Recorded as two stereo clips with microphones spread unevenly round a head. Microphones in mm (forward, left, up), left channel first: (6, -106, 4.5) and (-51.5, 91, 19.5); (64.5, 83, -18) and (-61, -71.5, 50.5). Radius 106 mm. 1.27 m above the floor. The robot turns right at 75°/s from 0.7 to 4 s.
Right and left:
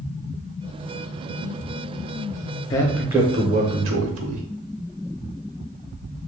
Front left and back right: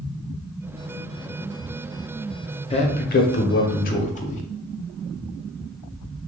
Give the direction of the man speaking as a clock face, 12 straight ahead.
12 o'clock.